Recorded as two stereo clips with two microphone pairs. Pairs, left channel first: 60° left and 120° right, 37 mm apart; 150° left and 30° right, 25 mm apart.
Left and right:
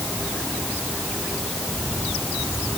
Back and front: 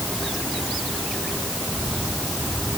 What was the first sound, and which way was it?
Only background noise.